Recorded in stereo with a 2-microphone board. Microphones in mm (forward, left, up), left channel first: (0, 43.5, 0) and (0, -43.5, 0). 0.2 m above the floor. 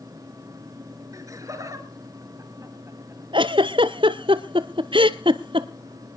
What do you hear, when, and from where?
1.1 s laughter: 40° right (ahead or behind), 3.5 m; by 3.2 s 35° right (ahead or behind), 4.5 m
3.3 s a giggle: 75° right (ahead or behind), 0.7 m